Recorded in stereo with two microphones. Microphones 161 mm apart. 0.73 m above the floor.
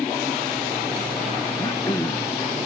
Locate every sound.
1.6 s throat clearing: 20° left (ahead or behind)